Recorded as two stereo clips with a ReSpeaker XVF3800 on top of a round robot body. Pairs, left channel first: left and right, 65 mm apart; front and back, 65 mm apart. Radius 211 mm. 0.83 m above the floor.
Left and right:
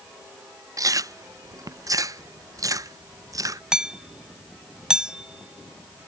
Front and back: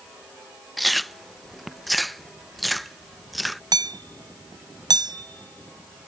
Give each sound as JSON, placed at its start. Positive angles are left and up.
{"t": 0.8, "sound": "chewing", "azimuth_deg": -90}
{"t": 3.7, "sound": "hammering", "azimuth_deg": -170}